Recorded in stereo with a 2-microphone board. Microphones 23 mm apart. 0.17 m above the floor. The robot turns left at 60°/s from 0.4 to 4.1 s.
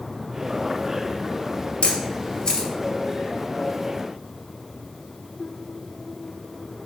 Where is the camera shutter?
65° left (ahead or behind), 2.5 m; by 2.7 s 20° left (ahead or behind), 2.5 m.